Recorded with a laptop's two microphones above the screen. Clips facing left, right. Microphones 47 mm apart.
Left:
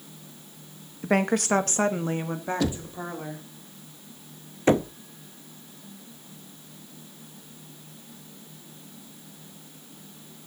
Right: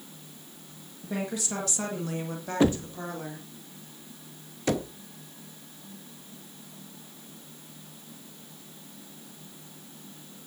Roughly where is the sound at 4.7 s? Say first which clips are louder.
Left 7 dB; left.